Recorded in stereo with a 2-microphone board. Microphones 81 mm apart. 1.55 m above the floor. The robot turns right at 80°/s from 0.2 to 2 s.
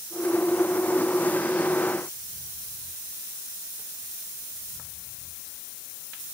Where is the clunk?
I don't hear a clunk.